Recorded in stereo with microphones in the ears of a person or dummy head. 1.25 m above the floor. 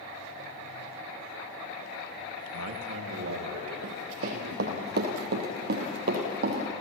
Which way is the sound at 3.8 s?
45° right (ahead or behind).